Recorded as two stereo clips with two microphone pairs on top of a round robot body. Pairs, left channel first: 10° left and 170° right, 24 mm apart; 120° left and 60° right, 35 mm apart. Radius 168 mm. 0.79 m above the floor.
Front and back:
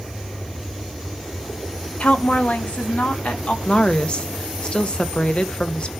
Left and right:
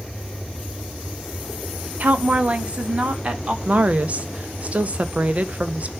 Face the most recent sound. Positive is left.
turn(degrees=-30)